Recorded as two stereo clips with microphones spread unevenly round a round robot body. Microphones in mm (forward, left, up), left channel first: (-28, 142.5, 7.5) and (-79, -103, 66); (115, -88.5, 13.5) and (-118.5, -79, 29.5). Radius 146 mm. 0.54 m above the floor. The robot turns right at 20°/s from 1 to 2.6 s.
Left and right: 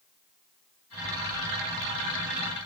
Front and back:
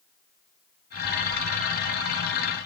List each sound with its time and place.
Only background noise.